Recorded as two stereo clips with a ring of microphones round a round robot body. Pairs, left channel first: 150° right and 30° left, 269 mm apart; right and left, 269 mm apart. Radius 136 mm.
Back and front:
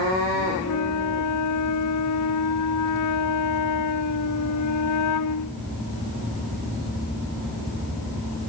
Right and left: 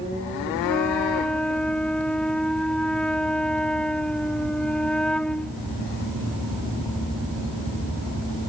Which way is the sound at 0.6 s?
175° right.